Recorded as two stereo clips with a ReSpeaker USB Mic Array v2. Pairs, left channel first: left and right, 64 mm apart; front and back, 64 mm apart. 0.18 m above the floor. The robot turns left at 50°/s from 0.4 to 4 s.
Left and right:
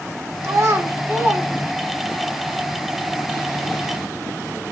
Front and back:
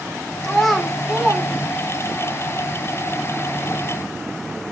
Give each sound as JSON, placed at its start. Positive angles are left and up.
{"t": 0.4, "sound": "a child speaking", "azimuth_deg": -75, "distance_m": 1.5}